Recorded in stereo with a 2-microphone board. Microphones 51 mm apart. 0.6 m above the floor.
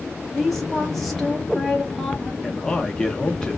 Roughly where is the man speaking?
Centre.